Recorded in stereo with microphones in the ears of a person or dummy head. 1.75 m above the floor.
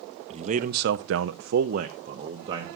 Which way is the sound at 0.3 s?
35° right (ahead or behind).